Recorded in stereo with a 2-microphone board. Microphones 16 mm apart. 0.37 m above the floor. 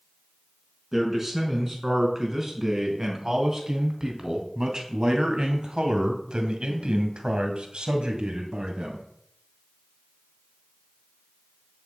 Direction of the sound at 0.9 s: 15° right (ahead or behind).